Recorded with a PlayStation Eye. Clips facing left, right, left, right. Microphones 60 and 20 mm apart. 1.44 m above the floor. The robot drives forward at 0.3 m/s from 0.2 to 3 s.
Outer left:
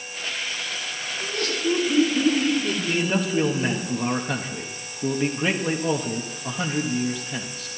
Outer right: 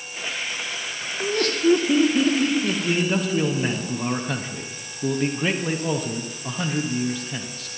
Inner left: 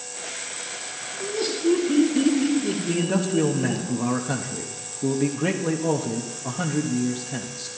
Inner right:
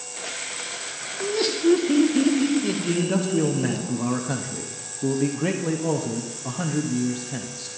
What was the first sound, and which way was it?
Laughter, 60° right (ahead or behind).